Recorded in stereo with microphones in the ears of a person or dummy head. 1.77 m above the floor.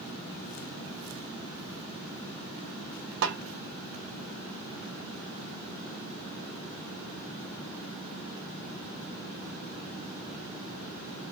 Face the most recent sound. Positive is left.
turn(degrees=-60)  # may be behind; listen again after turning